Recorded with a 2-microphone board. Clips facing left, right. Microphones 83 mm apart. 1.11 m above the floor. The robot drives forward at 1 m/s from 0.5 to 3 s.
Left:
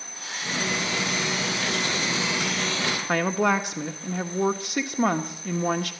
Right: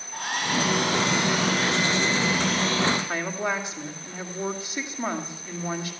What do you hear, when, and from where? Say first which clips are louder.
0.1 s a hair dryer: right 6 dB; 60° right (ahead or behind), 4.5 m; by 3.0 s 40° right (ahead or behind), 6 m
3.1 s a woman speaking: left 5 dB; 70° left (ahead or behind), 2.0 m